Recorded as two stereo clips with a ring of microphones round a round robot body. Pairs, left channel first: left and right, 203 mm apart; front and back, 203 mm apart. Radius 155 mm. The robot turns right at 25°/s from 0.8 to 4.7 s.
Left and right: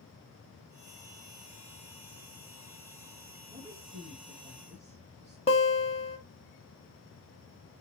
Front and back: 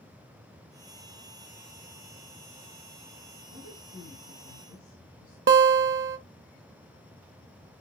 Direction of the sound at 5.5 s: 155° left.